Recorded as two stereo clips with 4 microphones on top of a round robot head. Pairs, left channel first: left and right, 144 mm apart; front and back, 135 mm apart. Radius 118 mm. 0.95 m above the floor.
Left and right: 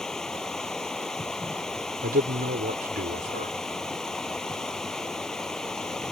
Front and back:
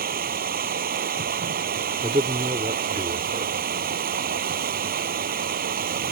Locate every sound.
0.0 s running water: 175° left
2.0 s a man speaking: 120° right